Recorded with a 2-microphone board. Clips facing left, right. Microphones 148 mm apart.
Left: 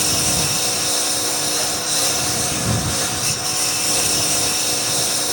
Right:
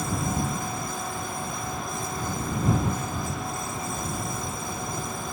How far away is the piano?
No piano in this recording.